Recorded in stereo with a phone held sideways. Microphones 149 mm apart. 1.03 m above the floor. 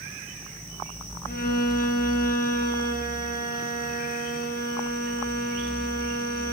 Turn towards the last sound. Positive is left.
turn(degrees=75)  # may be behind; listen again after turning